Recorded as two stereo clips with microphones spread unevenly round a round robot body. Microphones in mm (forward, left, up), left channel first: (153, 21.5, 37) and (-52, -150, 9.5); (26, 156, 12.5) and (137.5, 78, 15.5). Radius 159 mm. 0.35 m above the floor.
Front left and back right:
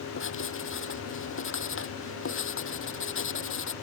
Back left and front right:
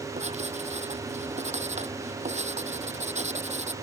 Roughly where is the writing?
Ahead.